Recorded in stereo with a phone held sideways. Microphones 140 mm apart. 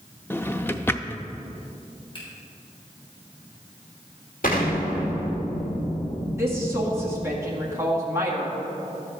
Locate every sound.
0.3 s a drawer: 15° left (ahead or behind), 0.6 m
2.1 s a finger snap: 35° left (ahead or behind), 4 m
4.4 s an explosion: 85° left, 2.5 m
6.4 s a woman speaking: 20° right (ahead or behind), 2 m